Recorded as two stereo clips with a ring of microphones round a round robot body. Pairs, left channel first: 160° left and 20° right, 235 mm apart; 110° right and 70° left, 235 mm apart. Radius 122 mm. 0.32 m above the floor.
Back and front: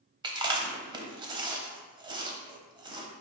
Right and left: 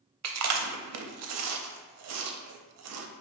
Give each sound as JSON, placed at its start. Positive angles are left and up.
{"t": 0.2, "sound": "chewing", "azimuth_deg": 50, "distance_m": 0.5}